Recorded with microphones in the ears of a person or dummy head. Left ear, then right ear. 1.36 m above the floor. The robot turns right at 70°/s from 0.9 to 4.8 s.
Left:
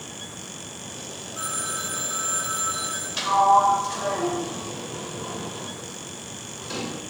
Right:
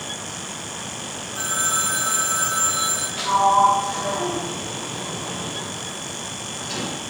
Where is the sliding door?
45° left (ahead or behind), 3 m; by 7.0 s 20° left (ahead or behind), 3 m.